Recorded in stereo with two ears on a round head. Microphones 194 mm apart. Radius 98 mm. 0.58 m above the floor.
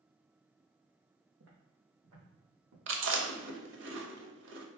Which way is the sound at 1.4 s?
70° right (ahead or behind).